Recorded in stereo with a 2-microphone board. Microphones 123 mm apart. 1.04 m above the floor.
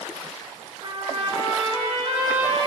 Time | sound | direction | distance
0.8 | a trumpet | 50° right (ahead or behind) | 1.6 m